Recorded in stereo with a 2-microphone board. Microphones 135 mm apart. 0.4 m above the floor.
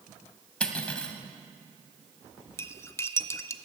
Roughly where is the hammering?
No hammering in this recording.